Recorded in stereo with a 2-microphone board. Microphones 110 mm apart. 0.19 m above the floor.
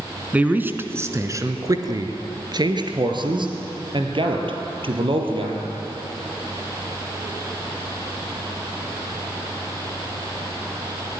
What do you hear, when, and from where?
0.3 s a man speaking: 15° right (ahead or behind), 1.6 m; by 5.6 s 60° right (ahead or behind), 4.5 m